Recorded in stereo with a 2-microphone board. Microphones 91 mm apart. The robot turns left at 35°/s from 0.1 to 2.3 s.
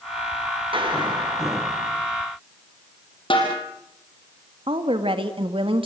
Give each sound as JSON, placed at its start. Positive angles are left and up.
{"t": 0.7, "sound": "a clap", "azimuth_deg": -105, "distance_m": 7.0}
{"t": 3.3, "sound": "a snare drum", "side_deg": 70, "distance_m": 6.0}
{"t": 4.7, "sound": "a woman speaking", "side_deg": -75, "distance_m": 2.5}